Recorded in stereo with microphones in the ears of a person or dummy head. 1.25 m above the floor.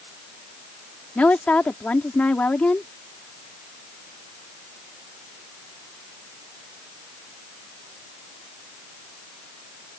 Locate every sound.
1.1 s a woman speaking: 10° left (ahead or behind)